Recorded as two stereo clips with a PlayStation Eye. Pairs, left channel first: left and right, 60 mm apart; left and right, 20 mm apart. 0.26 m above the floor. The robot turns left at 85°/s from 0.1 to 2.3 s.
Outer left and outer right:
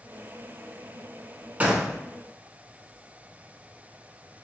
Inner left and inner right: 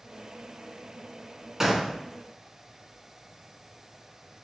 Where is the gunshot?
150° right, 0.5 m; by 2.0 s 175° left, 0.5 m.